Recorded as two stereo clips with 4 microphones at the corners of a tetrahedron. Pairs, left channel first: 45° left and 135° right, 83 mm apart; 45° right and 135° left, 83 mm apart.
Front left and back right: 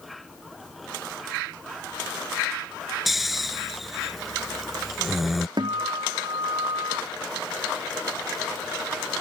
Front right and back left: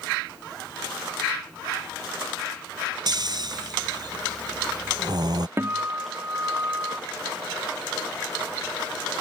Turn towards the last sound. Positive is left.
turn(degrees=-165)